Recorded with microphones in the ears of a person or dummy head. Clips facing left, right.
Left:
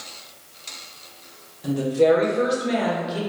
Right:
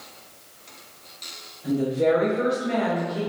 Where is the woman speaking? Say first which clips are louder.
Left 3 dB; 80° left, 1.3 m; by 3.2 s 45° left (ahead or behind), 1.5 m.